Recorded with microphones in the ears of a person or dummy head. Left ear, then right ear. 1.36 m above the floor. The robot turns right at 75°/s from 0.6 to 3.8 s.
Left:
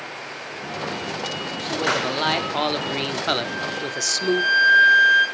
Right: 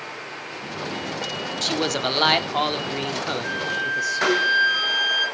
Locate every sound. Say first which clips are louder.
1.6 s a man speaking: left 1 dB; 75° right, 0.5 m; by 4.4 s 90° left, 0.5 m
3.4 s a flute: right 2 dB; 10° right (ahead or behind), 4 m; by 5.2 s 35° right (ahead or behind), 4 m